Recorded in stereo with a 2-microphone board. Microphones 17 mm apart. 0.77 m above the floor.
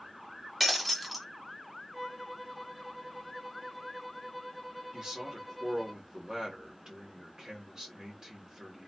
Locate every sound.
0.6 s breaking glass: 5° right (ahead or behind), 0.8 m
1.9 s a violin: centre (ahead or behind), 1.0 m
4.9 s a man speaking: 40° right (ahead or behind), 1.7 m